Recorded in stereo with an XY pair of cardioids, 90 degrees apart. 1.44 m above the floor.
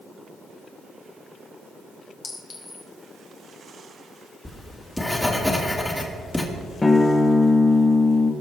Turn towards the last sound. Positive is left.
turn(degrees=25)